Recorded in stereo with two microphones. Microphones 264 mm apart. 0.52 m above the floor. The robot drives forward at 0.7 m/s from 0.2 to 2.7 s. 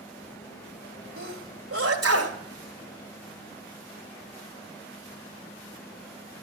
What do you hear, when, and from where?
1.2 s a sneeze: 50° right (ahead or behind), 2.5 m; by 2.4 s 65° right (ahead or behind), 2 m